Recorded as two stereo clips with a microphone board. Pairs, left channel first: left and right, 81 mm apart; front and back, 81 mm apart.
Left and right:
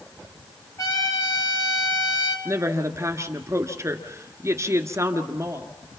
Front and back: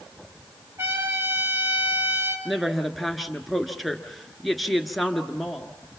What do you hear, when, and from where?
0.8 s a trumpet: 125° left, 2.5 m
2.5 s a woman speaking: 90° right, 1.5 m